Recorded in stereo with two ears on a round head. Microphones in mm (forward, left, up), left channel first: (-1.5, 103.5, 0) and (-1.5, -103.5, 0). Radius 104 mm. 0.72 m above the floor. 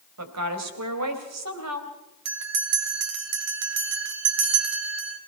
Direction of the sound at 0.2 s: 80° right.